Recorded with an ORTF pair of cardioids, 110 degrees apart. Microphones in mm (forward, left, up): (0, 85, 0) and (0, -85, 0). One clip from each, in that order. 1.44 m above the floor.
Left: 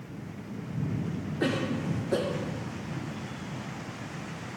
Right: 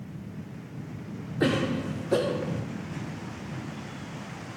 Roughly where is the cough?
Ahead.